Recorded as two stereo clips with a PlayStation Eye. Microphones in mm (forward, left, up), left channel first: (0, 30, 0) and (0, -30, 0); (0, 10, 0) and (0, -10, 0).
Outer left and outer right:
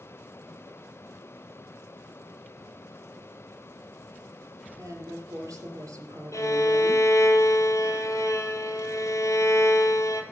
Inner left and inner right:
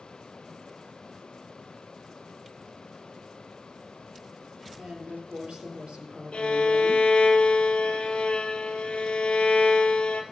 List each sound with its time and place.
4.8 s a woman speaking: 65° right (ahead or behind), 3 m
6.3 s a violin: 60° left (ahead or behind), 1.5 m